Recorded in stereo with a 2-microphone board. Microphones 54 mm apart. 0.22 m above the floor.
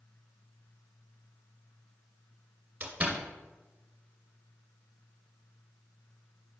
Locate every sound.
2.8 s a door slam: 35° right (ahead or behind), 2 m